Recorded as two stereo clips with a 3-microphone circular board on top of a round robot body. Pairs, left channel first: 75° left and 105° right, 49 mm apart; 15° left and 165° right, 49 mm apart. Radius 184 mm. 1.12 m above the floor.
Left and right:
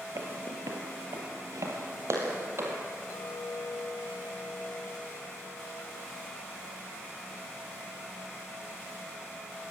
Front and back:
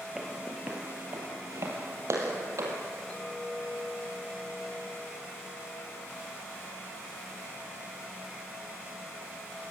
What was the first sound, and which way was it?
Footsteps, 85° right.